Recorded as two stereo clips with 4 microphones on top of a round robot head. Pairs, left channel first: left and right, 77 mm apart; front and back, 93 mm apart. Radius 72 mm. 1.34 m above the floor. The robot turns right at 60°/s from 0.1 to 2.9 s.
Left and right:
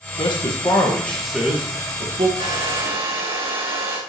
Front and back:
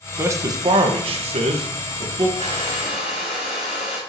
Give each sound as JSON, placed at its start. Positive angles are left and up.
{"t": 0.2, "sound": "a man speaking", "azimuth_deg": 115, "distance_m": 1.5}
{"t": 2.4, "sound": "a hair dryer", "azimuth_deg": -125, "distance_m": 3.5}